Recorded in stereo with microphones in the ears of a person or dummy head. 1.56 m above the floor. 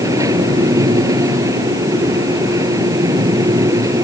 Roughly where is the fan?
Centre.